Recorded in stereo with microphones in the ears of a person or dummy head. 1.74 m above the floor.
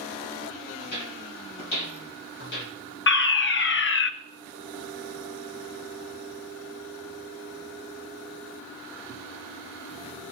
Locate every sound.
0.8 s footsteps: 50° left (ahead or behind), 2.5 m; by 2.7 s 60° left (ahead or behind), 3.5 m
3.1 s a fire alarm: 55° left (ahead or behind), 0.7 m